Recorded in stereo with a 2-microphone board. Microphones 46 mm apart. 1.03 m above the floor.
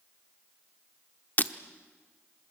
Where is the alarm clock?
I don't hear an alarm clock.